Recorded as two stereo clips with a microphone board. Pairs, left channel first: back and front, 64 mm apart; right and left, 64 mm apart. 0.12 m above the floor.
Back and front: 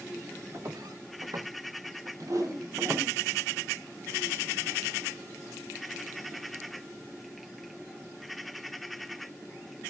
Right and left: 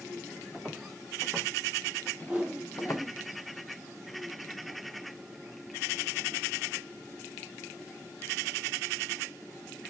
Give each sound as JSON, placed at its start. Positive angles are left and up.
{"t": 0.5, "sound": "footsteps", "azimuth_deg": 0, "distance_m": 3.5}
{"t": 2.2, "sound": "a whoosh", "azimuth_deg": 10, "distance_m": 4.0}